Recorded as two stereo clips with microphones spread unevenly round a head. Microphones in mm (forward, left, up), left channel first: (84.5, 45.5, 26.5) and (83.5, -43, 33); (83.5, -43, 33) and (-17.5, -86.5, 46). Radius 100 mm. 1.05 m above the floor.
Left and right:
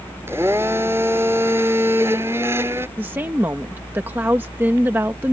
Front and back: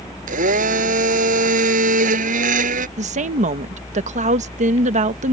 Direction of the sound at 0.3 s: 170° right.